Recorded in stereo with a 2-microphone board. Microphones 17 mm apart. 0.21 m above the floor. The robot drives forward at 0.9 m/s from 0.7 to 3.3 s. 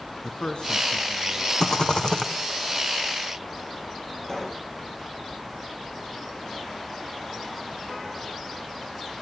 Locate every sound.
0.2 s a man speaking: 50° left (ahead or behind), 2.5 m; by 1.5 s 45° left (ahead or behind), 2.5 m
1.6 s a rattle: 45° left (ahead or behind), 3.5 m; by 2.3 s 50° left (ahead or behind), 3 m
4.2 s a pop: 25° left (ahead or behind), 3 m